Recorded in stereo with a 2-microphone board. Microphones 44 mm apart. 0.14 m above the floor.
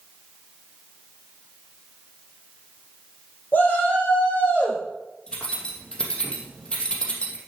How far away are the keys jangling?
About 3 m.